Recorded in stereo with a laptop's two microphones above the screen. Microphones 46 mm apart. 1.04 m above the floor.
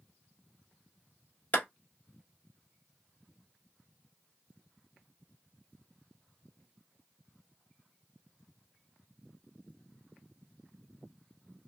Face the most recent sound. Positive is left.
turn(degrees=30)  # may be behind; listen again after turning